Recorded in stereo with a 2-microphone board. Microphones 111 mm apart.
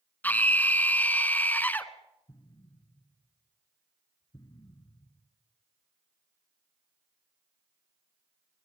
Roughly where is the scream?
Centre.